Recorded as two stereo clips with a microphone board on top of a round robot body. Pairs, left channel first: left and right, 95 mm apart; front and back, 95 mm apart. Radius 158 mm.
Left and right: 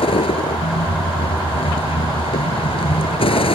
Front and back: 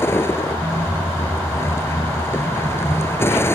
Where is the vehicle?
65° left.